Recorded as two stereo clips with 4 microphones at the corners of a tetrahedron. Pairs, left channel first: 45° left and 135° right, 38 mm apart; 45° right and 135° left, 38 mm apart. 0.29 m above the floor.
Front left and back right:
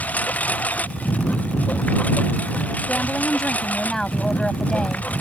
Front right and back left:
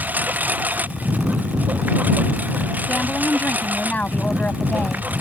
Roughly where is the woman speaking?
Ahead.